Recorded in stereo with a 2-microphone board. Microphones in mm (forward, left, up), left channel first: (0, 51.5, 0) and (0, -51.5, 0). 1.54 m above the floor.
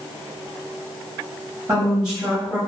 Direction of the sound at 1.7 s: 30° right (ahead or behind).